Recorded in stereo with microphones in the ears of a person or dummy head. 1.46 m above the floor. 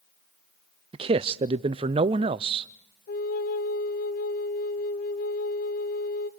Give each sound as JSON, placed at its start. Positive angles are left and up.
{"t": 0.9, "sound": "a man speaking", "side_deg": -30, "distance_m": 0.5}
{"t": 3.1, "sound": "a flute", "side_deg": 50, "distance_m": 0.8}